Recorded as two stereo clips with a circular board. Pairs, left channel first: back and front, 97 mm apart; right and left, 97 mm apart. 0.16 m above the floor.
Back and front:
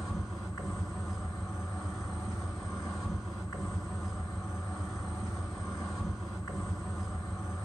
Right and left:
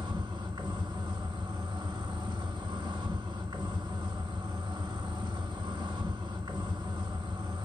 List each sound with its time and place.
0.0 s an insect: 95° left, 3 m